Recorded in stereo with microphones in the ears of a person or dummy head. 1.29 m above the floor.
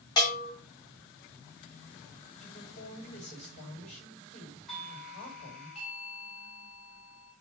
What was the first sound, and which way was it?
A bell, 20° left (ahead or behind).